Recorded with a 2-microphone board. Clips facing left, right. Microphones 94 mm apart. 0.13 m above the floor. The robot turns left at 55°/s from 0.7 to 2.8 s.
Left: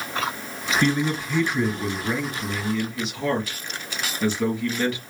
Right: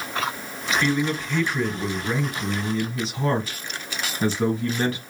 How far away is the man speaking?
About 2.5 m.